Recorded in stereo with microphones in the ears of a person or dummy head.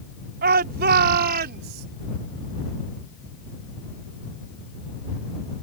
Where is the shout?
60° right (ahead or behind).